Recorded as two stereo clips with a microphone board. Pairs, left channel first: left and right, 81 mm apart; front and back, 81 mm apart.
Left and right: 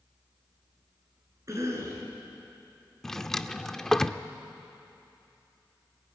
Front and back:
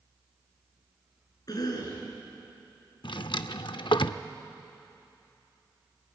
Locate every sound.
1.5 s a cough: 40° right, 6.5 m
3.0 s a drawer: 5° left, 0.6 m